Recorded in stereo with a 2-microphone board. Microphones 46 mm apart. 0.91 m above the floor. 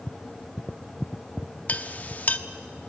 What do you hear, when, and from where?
1.7 s a clink: 35° left (ahead or behind), 0.8 m